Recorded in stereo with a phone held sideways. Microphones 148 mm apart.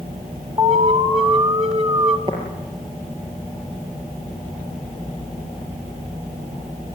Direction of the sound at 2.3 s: 35° right (ahead or behind).